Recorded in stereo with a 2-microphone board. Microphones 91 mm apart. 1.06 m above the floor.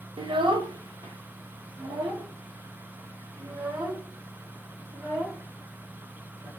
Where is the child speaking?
65° right (ahead or behind), 0.6 m; by 6.5 s 50° right (ahead or behind), 4 m.